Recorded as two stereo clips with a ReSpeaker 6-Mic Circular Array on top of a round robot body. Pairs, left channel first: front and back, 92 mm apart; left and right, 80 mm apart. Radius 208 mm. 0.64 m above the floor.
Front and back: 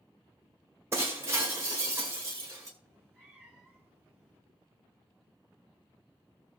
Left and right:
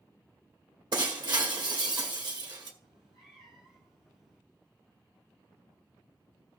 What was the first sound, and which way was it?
Breaking glass, 120° right.